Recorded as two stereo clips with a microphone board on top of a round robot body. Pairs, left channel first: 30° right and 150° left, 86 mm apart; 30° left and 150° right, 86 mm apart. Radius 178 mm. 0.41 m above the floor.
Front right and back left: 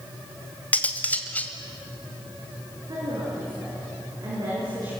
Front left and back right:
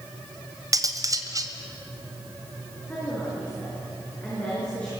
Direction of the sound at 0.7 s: 105° right.